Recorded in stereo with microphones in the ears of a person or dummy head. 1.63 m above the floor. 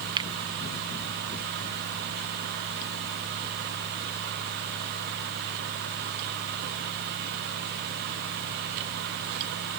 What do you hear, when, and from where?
0.2 s a finger snap: 20° right (ahead or behind)